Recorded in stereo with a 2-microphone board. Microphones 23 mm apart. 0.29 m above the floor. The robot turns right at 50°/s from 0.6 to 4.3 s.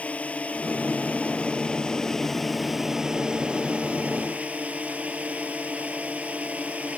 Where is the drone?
75° left (ahead or behind); by 7.0 s 80° right.